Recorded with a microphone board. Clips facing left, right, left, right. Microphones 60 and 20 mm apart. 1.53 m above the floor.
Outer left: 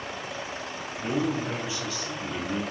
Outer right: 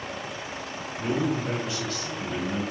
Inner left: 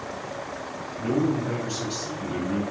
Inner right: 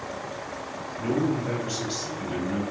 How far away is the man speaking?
About 1.6 m.